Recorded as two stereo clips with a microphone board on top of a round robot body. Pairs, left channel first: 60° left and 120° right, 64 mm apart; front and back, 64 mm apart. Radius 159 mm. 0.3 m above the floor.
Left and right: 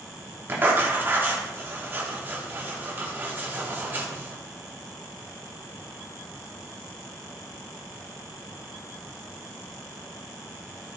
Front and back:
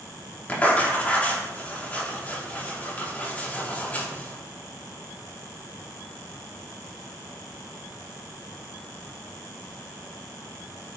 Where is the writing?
65° right, 3 m.